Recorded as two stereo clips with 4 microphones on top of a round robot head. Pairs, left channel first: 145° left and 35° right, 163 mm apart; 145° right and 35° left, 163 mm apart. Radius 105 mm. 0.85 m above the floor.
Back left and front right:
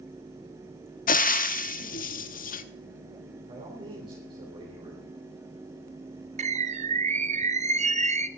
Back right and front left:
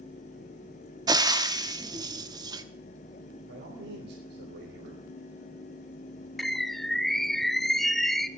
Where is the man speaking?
25° left, 3.5 m.